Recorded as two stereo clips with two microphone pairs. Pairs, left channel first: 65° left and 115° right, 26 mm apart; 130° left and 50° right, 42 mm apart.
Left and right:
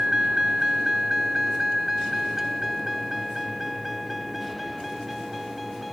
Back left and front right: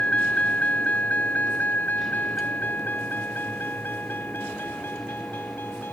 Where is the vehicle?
175° right; by 6.0 s 155° left.